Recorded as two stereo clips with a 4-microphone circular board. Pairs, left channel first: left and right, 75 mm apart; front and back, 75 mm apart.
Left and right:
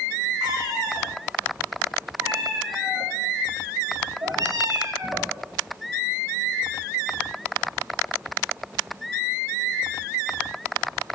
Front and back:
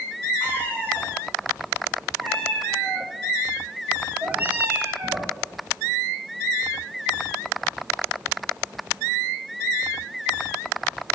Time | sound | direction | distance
0.4 | a cat meowing | 65° right | 4.5 m